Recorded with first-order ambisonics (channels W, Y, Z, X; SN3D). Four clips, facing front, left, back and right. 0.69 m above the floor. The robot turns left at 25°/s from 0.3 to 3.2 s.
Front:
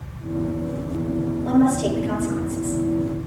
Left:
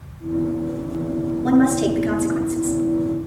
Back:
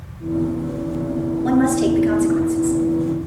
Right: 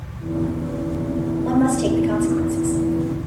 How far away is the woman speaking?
About 8 m.